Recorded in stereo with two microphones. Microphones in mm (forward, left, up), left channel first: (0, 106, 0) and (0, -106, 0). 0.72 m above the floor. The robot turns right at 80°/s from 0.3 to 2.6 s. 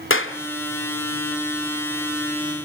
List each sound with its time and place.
0.1 s a clap: 65° left (ahead or behind), 1.6 m; by 0.4 s 70° left (ahead or behind), 1.6 m